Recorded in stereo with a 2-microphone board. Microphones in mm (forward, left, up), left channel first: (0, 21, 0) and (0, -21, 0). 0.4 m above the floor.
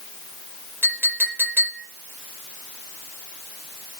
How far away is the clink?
About 7.5 m.